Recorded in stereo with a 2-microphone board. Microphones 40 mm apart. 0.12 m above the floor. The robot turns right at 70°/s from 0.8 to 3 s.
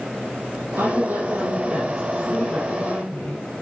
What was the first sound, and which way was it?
A woman speaking, 105° right.